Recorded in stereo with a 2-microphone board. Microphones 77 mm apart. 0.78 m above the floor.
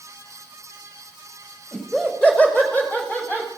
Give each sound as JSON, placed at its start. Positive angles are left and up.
{"t": 1.7, "sound": "laughter", "side_deg": 10, "distance_m": 4.5}